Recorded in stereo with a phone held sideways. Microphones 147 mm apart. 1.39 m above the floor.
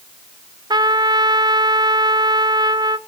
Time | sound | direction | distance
0.7 | a trumpet | 30° right (ahead or behind) | 0.6 m